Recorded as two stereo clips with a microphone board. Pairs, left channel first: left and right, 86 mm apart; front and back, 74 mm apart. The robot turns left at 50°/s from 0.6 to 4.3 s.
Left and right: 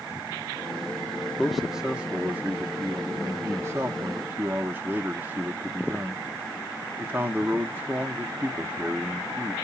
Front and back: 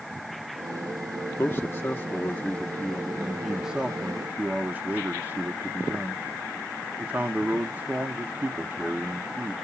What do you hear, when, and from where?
1.4 s a man speaking: 5° left, 0.8 m; by 9.5 s 140° right, 0.8 m